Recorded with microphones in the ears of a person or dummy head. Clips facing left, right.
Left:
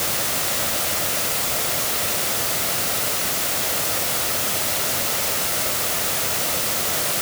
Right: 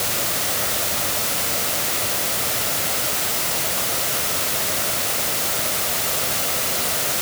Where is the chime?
No chime in this recording.